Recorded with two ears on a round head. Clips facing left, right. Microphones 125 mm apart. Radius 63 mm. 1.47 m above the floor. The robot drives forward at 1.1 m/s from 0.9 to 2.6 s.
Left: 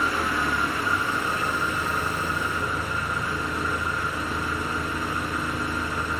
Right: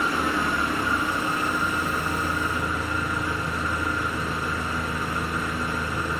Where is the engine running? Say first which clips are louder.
Right 1 dB; 20° right (ahead or behind), 1.5 m; by 6.2 s 10° right (ahead or behind), 3.5 m.